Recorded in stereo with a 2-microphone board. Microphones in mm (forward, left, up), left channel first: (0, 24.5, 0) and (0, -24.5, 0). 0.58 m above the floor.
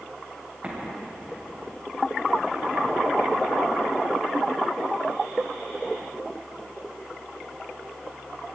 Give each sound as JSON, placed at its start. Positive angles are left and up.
{"t": 0.6, "sound": "an explosion", "side_deg": -25, "distance_m": 2.5}